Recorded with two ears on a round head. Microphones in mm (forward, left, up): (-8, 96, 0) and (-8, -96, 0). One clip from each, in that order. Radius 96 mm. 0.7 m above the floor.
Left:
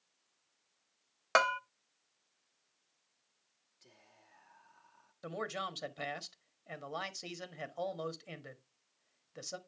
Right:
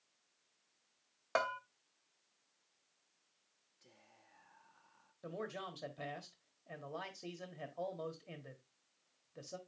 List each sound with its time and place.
1.4 s a bell: 55° left (ahead or behind), 0.7 m
3.8 s whispering: 10° left (ahead or behind), 0.9 m
5.2 s a man speaking: 45° left (ahead or behind), 1.2 m